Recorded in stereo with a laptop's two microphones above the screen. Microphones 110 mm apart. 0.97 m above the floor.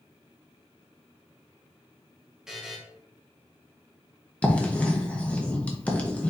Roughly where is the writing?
Centre.